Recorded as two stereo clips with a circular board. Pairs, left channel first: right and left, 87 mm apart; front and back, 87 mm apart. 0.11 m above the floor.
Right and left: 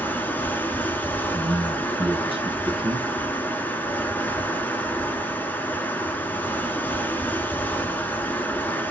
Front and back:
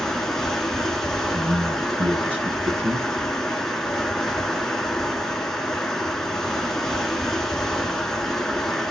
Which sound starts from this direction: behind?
A man speaking, at 1.3 s.